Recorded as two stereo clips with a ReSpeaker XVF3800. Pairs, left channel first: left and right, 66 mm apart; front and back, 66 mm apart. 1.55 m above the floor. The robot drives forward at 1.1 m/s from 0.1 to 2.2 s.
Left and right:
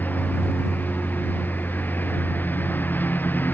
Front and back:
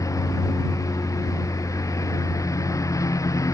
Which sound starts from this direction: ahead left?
A lawn mower, at 0.0 s.